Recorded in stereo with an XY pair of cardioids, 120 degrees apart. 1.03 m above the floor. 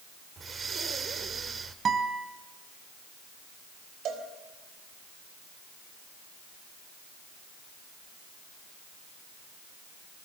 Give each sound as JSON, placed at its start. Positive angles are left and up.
{"t": 0.4, "sound": "breathing", "azimuth_deg": -35, "distance_m": 1.5}
{"t": 1.9, "sound": "a guitar", "azimuth_deg": -40, "distance_m": 2.5}
{"t": 4.0, "sound": "a cowbell", "azimuth_deg": -65, "distance_m": 3.5}